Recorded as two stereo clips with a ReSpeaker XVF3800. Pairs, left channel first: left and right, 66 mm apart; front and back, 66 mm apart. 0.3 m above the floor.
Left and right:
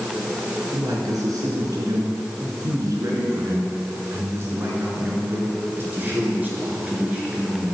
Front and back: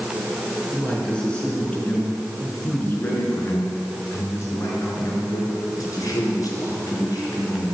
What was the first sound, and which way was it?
A man speaking, 75° right.